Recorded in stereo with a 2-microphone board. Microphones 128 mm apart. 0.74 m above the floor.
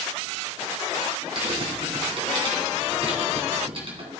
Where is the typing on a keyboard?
45° right (ahead or behind), 2.5 m.